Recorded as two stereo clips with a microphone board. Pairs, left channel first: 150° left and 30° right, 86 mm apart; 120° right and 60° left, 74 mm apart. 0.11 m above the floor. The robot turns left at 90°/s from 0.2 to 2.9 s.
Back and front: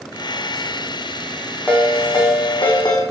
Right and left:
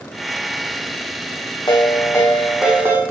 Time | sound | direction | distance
1.7 | a ringtone | 135° right | 3.5 m